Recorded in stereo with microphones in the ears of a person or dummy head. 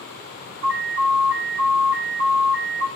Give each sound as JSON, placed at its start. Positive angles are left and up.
{"t": 0.6, "sound": "an alarm", "side_deg": -80, "distance_m": 7.0}